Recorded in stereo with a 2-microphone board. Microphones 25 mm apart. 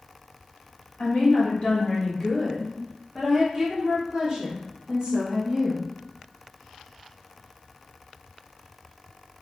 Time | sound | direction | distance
1.0 | a woman speaking | 50° left (ahead or behind) | 1.6 m